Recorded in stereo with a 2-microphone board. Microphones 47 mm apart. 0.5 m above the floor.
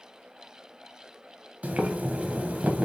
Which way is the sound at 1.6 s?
35° right (ahead or behind).